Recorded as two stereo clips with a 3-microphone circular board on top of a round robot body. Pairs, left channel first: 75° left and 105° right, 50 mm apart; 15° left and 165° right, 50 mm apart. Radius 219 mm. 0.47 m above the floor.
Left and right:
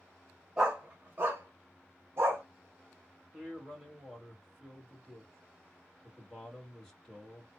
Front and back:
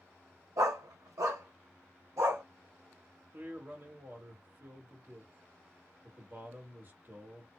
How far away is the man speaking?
About 2 m.